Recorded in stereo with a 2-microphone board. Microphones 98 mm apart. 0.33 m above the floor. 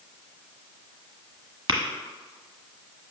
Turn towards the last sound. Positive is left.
turn(degrees=-55)  # may be behind; listen again after turning